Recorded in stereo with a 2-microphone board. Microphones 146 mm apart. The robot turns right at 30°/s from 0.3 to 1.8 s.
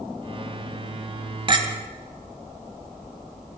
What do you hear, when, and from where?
1.5 s a clink: 35° right (ahead or behind), 0.9 m